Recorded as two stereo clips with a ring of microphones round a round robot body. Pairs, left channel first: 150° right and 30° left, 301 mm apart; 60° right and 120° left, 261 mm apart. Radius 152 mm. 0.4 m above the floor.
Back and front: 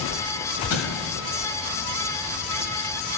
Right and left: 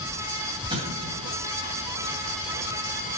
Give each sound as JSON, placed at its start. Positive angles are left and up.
{"t": 0.7, "sound": "an explosion", "azimuth_deg": -165, "distance_m": 2.5}